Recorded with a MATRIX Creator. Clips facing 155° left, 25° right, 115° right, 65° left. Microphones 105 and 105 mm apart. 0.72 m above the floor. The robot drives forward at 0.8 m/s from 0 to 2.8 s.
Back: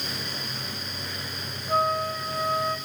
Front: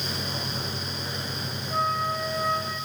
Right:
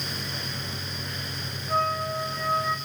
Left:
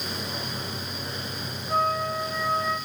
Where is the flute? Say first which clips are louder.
Back 2 dB, left 1 dB; 160° left, 9 m.